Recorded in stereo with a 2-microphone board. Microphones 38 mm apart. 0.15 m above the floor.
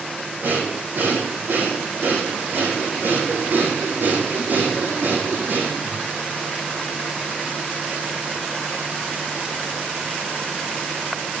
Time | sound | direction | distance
0.4 | breathing | 60° right (ahead or behind) | 6 m